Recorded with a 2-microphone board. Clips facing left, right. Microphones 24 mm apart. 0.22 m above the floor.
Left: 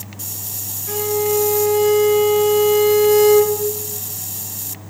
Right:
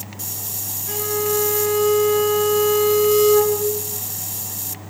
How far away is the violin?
About 1.0 m.